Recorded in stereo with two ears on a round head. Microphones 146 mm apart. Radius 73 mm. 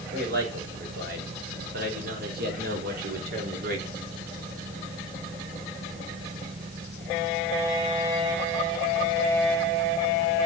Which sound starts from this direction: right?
A man speaking, at 0.1 s.